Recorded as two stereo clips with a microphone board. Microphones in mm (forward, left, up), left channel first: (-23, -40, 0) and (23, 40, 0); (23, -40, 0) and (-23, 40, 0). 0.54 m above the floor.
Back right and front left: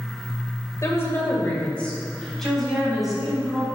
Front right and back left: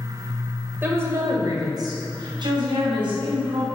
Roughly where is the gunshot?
No gunshot in this recording.